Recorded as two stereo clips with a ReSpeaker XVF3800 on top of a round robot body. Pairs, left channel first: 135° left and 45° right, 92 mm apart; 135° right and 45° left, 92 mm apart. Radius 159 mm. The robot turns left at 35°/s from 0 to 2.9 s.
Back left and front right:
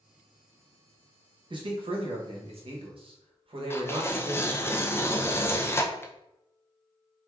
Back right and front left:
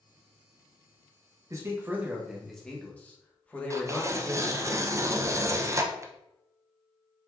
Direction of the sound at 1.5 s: 10° right.